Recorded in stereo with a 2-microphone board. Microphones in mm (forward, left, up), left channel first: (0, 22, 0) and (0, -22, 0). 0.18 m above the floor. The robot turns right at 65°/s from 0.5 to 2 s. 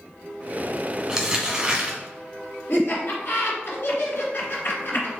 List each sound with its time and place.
1.1 s crumpling: 15° right (ahead or behind), 1.3 m; by 2.0 s 25° right (ahead or behind), 1.3 m
2.7 s laughter: 55° left (ahead or behind), 1.7 m